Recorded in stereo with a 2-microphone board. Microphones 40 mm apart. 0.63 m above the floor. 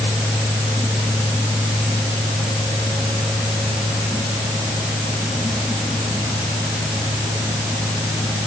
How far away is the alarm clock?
I don't hear an alarm clock.